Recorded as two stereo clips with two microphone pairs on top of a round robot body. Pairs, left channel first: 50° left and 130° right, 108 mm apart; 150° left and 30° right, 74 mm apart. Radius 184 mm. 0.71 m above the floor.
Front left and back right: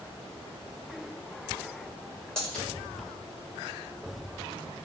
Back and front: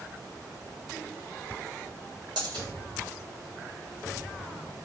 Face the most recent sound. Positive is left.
turn(degrees=-30)